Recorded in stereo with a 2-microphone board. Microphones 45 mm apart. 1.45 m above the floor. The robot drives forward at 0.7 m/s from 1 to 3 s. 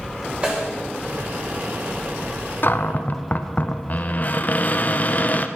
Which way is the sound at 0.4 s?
25° right (ahead or behind).